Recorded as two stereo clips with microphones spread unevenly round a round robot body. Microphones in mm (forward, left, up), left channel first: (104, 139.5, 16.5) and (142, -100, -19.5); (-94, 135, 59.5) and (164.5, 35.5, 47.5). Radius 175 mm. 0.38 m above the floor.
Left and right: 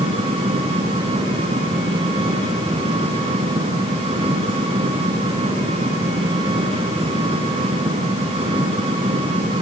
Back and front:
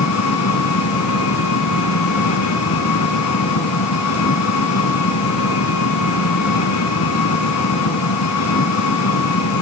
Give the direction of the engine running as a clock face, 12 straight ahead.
5 o'clock.